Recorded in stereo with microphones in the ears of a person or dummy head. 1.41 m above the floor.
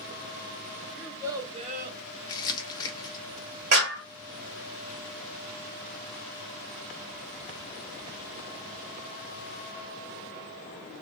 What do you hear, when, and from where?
0.9 s a child speaking: 5° right (ahead or behind), 1.1 m; by 2.0 s 60° right (ahead or behind), 0.7 m
2.3 s crumpling: 20° left (ahead or behind), 0.7 m
3.7 s a clap: 55° right (ahead or behind), 1.8 m